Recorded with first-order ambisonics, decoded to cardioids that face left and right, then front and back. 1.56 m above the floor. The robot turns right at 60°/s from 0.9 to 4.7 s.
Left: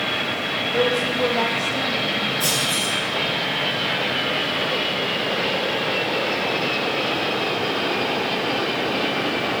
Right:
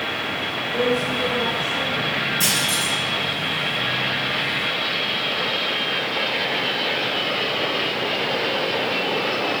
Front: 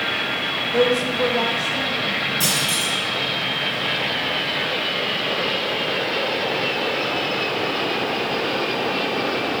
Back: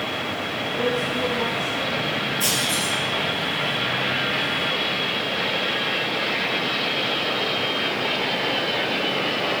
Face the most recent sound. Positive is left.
turn(degrees=90)